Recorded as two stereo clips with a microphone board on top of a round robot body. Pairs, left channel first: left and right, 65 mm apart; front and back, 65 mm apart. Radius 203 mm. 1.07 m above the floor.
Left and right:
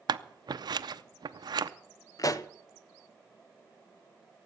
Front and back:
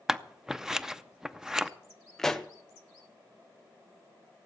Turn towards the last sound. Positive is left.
turn(degrees=80)